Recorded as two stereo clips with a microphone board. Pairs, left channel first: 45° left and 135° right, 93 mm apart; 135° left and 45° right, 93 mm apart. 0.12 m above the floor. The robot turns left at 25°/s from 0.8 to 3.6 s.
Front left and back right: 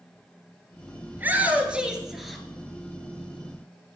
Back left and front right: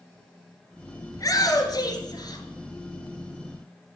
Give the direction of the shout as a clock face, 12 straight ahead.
6 o'clock.